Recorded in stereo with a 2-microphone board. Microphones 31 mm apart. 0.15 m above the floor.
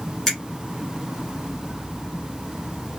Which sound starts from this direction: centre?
A finger snap, at 0.3 s.